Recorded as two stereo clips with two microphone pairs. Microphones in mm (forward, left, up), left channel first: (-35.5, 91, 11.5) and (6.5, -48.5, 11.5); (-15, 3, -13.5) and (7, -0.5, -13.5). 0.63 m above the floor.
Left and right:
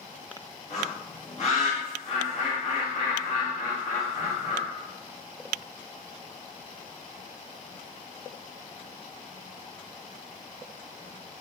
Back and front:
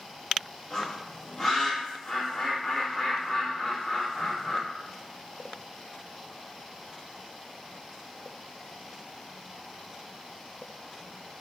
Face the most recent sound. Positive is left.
turn(degrees=95)